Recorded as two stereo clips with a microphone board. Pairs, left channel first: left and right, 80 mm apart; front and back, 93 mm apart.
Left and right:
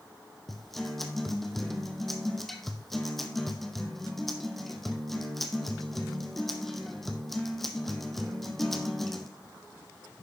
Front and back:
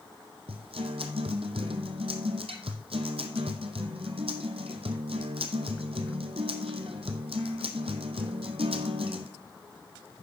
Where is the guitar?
175° left, 1.1 m.